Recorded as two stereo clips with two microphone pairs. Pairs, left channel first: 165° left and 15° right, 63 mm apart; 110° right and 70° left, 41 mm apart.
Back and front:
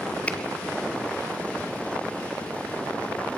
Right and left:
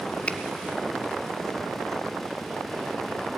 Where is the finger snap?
145° right, 1.5 m.